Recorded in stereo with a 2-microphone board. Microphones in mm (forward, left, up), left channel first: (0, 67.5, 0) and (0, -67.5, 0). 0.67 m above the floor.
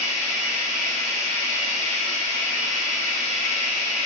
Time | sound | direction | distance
0.0 | running water | 50° right (ahead or behind) | 2 m